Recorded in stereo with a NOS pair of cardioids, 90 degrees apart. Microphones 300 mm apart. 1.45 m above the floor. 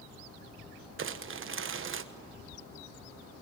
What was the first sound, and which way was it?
Crumpling, 45° right.